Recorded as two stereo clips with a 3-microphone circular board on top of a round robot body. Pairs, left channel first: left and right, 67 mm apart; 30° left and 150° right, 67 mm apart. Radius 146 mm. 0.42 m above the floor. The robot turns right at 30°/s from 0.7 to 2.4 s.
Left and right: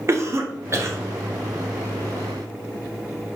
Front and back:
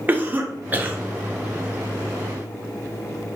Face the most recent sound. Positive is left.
turn(degrees=-50)